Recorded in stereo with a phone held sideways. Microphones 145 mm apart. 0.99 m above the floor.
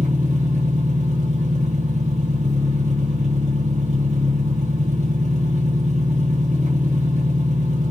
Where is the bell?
I don't hear a bell.